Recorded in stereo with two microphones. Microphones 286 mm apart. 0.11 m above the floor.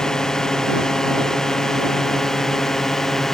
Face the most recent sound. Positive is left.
turn(degrees=0)  # may be behind; listen again after turning